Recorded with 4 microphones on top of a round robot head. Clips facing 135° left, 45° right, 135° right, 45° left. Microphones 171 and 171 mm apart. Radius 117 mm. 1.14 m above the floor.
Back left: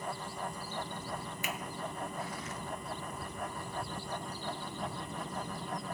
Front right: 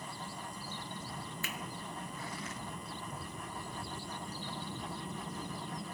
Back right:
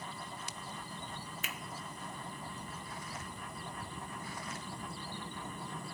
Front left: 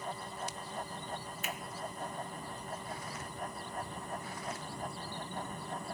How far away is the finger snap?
About 1.0 m.